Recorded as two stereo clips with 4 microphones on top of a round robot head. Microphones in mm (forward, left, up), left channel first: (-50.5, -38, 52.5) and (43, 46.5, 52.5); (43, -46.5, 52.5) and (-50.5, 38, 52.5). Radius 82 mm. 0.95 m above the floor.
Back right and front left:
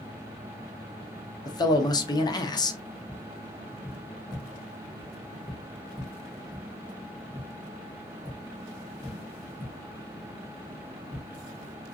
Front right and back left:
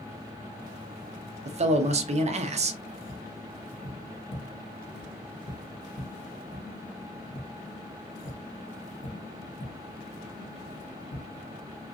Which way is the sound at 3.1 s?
40° right.